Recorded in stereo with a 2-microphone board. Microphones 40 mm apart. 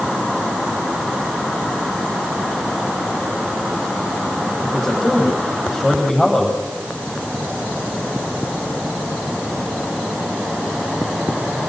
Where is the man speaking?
20° left (ahead or behind), 9 m.